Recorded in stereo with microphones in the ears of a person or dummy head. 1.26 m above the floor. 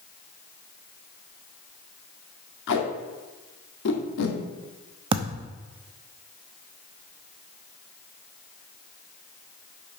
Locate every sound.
2.7 s tape being pulled: 70° left (ahead or behind), 2 m
5.1 s a thud: 25° right (ahead or behind), 0.8 m